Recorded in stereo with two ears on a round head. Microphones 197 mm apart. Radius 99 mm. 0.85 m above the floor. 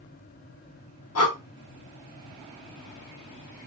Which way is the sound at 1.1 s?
75° left (ahead or behind).